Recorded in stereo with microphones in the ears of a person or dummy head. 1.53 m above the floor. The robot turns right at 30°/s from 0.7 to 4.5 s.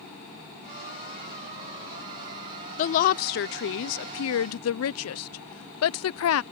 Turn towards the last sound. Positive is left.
turn(degrees=75)  # may be behind; listen again after turning